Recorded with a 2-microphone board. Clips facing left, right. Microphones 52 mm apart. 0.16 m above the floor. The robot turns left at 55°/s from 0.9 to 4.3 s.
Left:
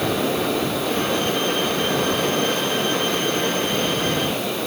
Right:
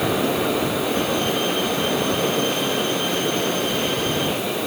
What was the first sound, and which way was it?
Only background noise.